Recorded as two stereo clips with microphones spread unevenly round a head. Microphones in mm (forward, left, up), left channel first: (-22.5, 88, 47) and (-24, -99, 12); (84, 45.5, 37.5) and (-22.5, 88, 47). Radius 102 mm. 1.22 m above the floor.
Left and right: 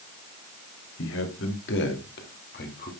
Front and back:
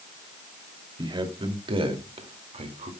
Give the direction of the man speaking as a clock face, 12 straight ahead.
8 o'clock.